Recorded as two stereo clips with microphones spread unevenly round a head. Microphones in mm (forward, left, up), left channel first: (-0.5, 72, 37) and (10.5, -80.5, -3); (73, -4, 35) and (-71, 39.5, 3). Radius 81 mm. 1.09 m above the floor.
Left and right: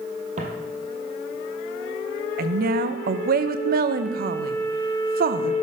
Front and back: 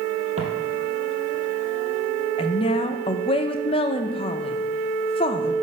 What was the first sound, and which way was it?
Footsteps, 140° right.